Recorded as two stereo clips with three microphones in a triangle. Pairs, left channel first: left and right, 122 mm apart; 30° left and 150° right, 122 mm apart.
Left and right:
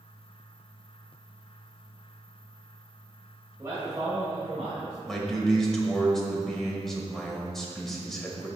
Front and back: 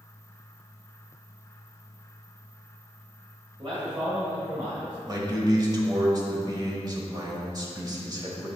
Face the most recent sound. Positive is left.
turn(degrees=175)